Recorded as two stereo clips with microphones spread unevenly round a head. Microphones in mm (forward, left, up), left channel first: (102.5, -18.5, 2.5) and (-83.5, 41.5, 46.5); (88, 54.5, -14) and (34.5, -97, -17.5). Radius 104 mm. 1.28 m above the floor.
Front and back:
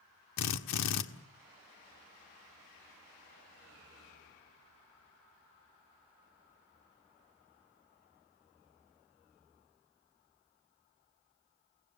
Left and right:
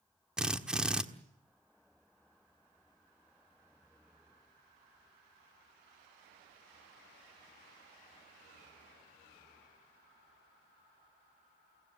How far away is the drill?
About 1.7 m.